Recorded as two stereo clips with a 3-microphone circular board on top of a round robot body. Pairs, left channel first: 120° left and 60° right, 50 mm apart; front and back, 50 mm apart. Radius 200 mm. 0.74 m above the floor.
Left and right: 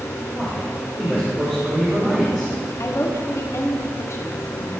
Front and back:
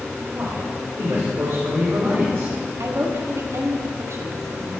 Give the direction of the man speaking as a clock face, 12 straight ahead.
4 o'clock.